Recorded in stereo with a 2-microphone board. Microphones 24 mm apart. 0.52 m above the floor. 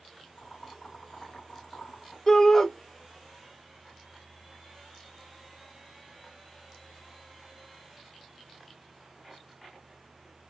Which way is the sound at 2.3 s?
25° left (ahead or behind).